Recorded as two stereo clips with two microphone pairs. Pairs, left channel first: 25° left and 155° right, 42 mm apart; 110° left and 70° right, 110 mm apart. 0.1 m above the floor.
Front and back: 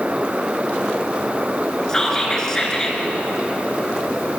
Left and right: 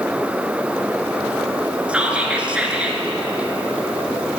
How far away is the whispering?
About 1.1 m.